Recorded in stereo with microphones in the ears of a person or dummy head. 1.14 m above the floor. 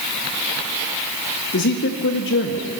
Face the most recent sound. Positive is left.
turn(degrees=65)  # may be behind; listen again after turning